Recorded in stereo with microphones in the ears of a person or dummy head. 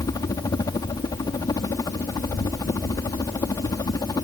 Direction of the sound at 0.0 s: 25° left (ahead or behind).